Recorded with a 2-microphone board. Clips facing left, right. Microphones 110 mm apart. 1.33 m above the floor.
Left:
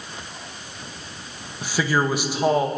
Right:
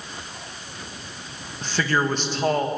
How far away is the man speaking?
About 2.0 m.